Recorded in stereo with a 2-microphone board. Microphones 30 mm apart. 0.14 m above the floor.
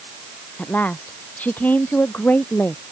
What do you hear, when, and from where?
0.6 s a woman speaking: 70° left (ahead or behind)